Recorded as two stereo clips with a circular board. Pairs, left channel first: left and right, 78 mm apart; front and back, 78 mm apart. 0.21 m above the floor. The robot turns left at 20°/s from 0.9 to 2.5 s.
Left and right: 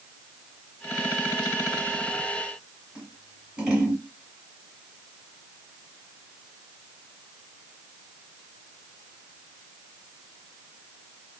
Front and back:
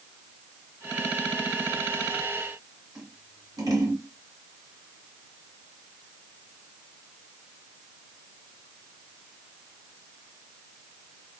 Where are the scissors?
160° right, 1.9 m.